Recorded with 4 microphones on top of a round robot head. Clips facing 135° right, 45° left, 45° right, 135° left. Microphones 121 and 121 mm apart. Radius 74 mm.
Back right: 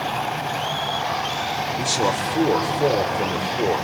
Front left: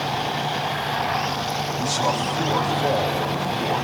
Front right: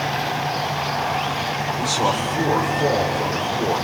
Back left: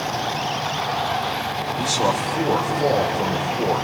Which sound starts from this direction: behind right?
A man speaking, at 1.8 s.